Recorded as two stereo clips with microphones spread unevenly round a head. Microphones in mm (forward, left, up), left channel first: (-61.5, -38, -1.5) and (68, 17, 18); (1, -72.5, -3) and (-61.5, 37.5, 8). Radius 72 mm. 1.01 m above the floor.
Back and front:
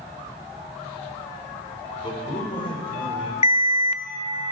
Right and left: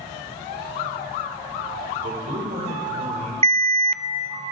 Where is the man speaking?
145° left, 4 m; by 3.3 s 150° left, 3 m.